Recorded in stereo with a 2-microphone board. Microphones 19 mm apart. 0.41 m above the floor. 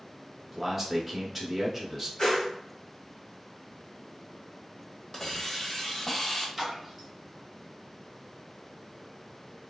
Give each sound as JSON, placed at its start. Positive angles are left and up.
{"t": 0.5, "sound": "a man speaking", "side_deg": 0, "distance_m": 0.8}
{"t": 2.2, "sound": "a whoosh", "side_deg": 45, "distance_m": 1.3}
{"t": 5.1, "sound": "a hiss", "side_deg": 25, "distance_m": 0.7}
{"t": 6.6, "sound": "a splash", "side_deg": -5, "distance_m": 1.2}